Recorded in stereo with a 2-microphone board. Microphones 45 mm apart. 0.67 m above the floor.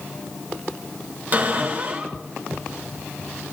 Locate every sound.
1.3 s a cupboard door: 35° right (ahead or behind), 2.5 m